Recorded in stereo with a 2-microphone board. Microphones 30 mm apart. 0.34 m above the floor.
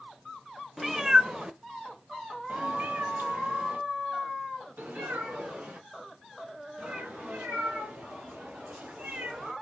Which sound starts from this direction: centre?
A cat meowing, at 0.8 s.